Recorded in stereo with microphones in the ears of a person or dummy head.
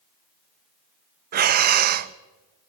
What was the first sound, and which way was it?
Breathing, 50° right (ahead or behind).